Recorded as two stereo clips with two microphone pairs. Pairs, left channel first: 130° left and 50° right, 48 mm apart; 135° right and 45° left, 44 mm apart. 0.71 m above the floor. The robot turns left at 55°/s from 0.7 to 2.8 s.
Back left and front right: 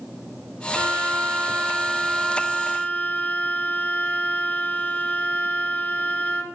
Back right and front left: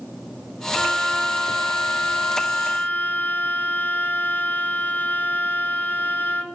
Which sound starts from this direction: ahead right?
A violin, at 0.8 s.